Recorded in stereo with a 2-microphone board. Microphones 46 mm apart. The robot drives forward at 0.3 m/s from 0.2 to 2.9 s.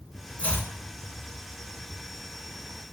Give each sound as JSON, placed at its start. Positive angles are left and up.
{"t": 0.4, "sound": "chopping", "side_deg": 30, "distance_m": 0.6}